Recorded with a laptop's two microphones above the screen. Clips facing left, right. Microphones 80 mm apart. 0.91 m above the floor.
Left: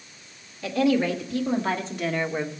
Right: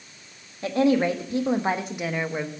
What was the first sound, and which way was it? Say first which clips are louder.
A woman speaking: right 1 dB; 35° right (ahead or behind).